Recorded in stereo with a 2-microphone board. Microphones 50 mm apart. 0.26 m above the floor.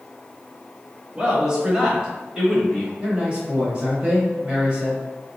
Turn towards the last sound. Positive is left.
turn(degrees=-20)  # may be behind; listen again after turning